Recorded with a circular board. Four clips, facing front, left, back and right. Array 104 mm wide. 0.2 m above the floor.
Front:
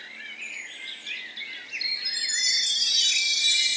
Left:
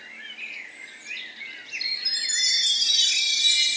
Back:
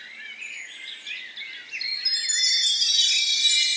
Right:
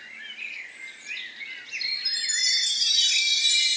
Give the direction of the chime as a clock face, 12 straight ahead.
8 o'clock.